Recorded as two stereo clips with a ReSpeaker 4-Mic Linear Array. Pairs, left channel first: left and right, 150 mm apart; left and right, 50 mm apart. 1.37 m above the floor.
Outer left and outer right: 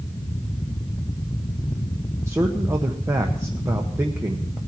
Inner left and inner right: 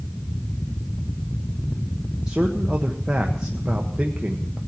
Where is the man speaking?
20° right (ahead or behind), 1.0 m.